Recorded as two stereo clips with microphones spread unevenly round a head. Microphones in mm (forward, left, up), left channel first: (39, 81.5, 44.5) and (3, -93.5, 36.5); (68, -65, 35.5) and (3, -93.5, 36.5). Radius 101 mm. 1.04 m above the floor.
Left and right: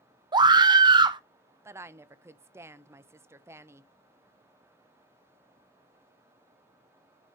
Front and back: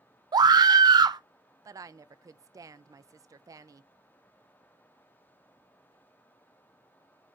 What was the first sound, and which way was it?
A scream, 165° right.